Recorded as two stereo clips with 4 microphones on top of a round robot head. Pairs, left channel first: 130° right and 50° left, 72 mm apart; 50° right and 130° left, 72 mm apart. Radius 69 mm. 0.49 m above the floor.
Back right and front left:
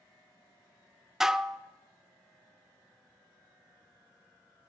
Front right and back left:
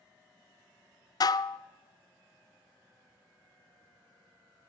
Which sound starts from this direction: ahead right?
Dishes clattering, at 1.2 s.